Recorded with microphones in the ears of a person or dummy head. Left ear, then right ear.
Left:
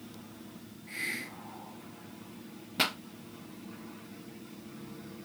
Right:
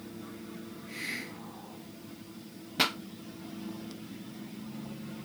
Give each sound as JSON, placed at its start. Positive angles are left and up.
{"t": 0.9, "sound": "a hiss", "side_deg": 45, "distance_m": 2.5}
{"t": 2.8, "sound": "a pop", "side_deg": 0, "distance_m": 0.6}